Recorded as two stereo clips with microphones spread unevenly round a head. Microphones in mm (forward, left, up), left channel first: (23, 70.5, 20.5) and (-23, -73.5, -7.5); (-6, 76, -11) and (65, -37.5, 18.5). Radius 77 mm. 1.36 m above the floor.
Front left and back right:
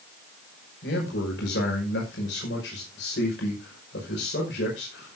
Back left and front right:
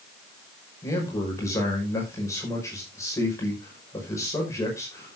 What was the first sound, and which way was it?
A man speaking, 55° left.